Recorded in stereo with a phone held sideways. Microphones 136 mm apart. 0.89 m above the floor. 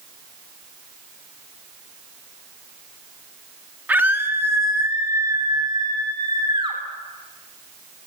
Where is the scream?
10° right (ahead or behind), 2 m; by 6.8 s 40° right (ahead or behind), 3 m.